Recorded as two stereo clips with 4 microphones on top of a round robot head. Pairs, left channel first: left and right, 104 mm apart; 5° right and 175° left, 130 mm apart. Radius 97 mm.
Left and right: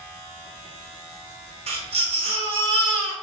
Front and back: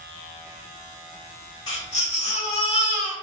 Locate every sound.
1.7 s a baby crying: 65° right, 1.1 m